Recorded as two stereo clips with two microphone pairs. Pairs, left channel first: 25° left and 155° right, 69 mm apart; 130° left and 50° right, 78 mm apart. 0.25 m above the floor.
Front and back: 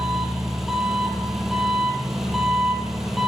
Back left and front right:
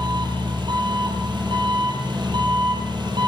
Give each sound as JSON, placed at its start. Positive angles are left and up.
{"t": 0.0, "sound": "an engine running", "azimuth_deg": -70, "distance_m": 5.5}